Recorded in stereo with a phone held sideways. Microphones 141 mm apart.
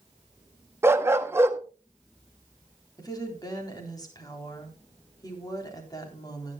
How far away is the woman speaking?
About 3.5 m.